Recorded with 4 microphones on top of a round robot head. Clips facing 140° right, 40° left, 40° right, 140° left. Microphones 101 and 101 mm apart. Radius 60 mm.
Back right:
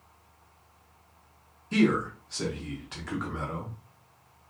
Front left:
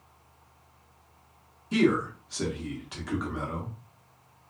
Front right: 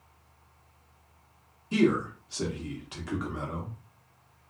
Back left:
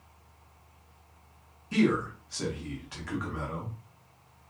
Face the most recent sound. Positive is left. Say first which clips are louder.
# even, front right 1 dB
turn(degrees=-30)